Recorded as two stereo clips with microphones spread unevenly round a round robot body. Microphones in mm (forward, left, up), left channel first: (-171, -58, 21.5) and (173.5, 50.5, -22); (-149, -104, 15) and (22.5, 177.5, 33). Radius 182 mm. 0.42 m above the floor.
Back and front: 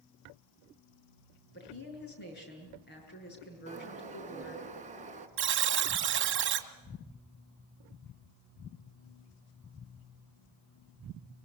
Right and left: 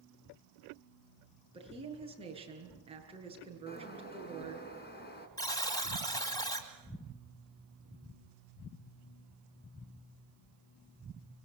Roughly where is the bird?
Ahead right.